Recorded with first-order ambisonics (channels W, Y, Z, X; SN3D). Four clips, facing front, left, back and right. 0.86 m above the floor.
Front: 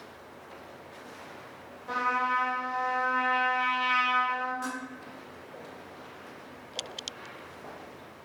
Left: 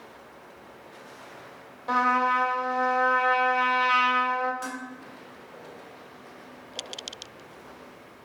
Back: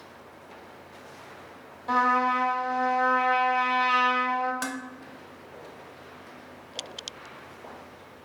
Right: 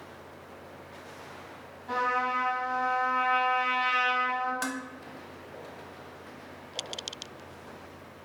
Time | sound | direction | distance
1.9 | a trumpet | 110° left | 1.3 m
4.6 | dishes clattering | 145° right | 0.6 m